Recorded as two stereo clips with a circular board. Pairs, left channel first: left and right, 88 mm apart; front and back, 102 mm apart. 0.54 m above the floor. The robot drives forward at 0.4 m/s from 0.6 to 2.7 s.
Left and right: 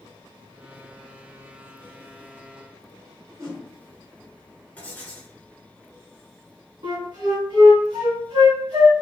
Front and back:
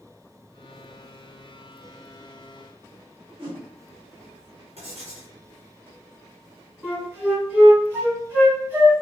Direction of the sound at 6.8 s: 110° right.